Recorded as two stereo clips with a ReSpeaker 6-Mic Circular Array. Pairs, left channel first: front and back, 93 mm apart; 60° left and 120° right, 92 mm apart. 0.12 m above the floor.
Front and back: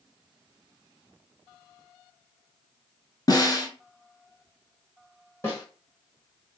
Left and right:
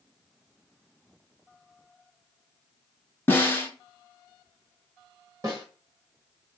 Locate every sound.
3.3 s a snare drum: 5° left, 0.9 m
5.4 s a snare drum: 65° right, 1.7 m